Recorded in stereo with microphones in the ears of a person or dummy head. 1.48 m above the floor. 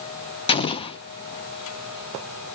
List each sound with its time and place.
0.5 s an explosion: 25° left (ahead or behind), 0.6 m